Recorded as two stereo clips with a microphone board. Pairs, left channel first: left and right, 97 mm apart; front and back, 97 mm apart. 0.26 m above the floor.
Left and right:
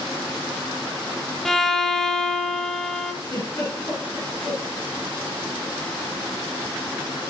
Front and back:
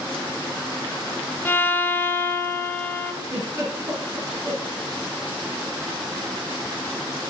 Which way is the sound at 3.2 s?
125° left.